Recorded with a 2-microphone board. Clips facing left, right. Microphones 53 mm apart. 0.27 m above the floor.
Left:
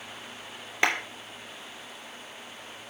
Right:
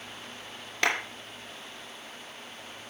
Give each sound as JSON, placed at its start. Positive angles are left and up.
{"t": 0.8, "sound": "a clap", "side_deg": 15, "distance_m": 3.0}